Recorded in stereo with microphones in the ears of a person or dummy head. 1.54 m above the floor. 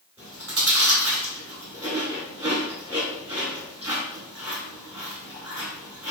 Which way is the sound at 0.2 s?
10° right (ahead or behind).